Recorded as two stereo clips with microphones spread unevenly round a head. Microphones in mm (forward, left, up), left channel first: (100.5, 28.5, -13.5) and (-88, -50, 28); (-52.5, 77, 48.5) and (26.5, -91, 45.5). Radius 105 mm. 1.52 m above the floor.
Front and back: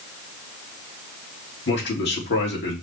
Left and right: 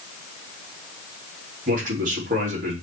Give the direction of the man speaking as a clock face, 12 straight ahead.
1 o'clock.